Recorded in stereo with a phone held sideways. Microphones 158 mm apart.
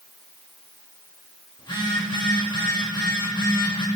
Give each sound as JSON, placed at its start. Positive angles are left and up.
{"t": 1.6, "sound": "a phone buzzing", "side_deg": 30, "distance_m": 1.7}